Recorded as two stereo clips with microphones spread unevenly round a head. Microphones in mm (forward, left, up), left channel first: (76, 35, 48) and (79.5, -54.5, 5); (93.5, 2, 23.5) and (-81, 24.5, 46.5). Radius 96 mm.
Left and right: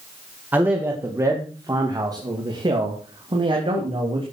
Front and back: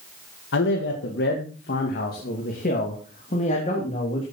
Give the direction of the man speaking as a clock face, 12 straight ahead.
1 o'clock.